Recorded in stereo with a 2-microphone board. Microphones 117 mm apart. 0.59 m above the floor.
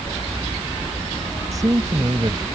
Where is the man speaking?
30° right (ahead or behind).